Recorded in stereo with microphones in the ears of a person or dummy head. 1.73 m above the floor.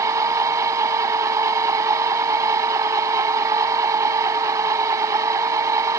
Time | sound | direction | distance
0.0 | a machine running | 15° right (ahead or behind) | ?